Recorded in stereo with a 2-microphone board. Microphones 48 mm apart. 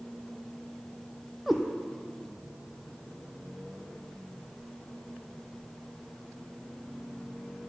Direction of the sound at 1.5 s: Centre (ahead or behind).